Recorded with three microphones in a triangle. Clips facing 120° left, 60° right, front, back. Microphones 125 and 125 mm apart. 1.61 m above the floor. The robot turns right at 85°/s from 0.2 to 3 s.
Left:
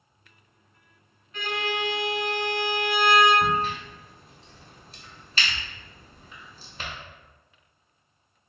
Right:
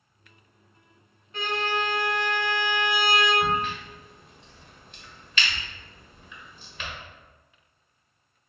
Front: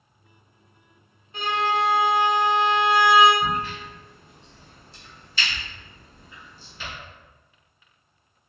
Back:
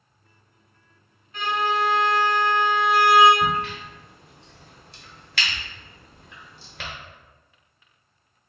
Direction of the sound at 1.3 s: 35° right.